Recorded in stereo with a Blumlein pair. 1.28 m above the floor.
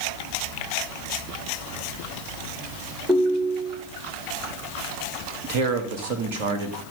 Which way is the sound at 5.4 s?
45° right.